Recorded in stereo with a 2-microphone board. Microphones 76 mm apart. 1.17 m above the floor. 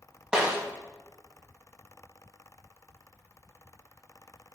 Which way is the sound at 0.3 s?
10° right (ahead or behind).